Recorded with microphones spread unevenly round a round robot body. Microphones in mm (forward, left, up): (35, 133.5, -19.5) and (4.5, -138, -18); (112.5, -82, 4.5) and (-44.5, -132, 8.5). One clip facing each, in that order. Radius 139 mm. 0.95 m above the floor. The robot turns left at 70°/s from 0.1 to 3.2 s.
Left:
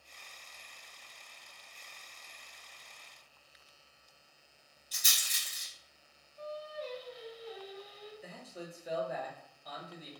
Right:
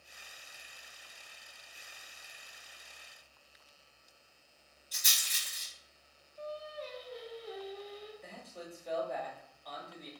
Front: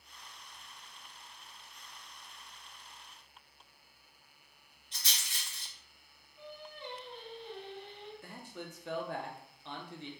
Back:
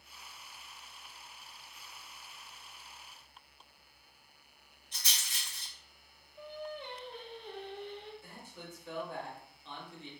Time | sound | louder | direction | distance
4.9 | a rattle | left 1 dB, even | 85° left | 1.4 m
6.4 | singing | left 1 dB, back 5 dB | 130° right | 0.7 m
8.2 | a man speaking | left 2 dB, front 4 dB | straight ahead | 0.6 m